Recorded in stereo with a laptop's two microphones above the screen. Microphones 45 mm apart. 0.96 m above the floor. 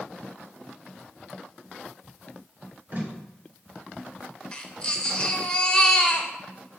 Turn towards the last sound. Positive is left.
turn(degrees=20)  # may be behind; listen again after turning